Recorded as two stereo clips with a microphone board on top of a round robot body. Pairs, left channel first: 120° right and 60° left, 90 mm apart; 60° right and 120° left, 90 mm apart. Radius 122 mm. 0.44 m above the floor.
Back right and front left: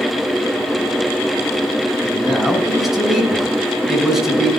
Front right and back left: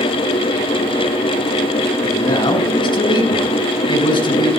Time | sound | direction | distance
2.0 | a man speaking | 25° right | 5 m